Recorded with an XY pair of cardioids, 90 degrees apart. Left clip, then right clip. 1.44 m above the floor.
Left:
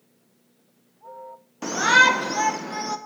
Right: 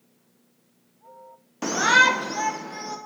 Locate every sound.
1.6 s a shout: 25° right, 0.6 m; by 3.0 s 45° left, 1.5 m